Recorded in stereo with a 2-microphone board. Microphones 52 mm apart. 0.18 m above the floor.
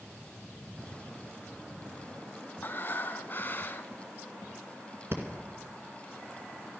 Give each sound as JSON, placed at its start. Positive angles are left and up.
{"t": 2.6, "sound": "breathing", "side_deg": 45, "distance_m": 0.7}
{"t": 5.1, "sound": "breathing", "side_deg": -55, "distance_m": 2.0}